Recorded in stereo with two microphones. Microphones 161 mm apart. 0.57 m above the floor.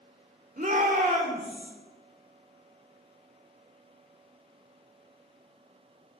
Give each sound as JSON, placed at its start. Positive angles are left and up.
{"t": 0.6, "sound": "a shout", "side_deg": -55, "distance_m": 1.7}